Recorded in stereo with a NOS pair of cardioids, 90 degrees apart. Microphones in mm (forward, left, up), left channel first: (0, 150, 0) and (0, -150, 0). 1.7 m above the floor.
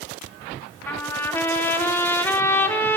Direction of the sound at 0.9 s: 5° left.